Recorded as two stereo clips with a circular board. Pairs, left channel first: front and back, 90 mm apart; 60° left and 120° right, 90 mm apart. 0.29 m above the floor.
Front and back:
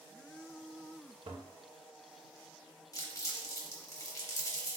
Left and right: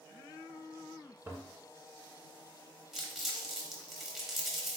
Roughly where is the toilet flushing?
Behind.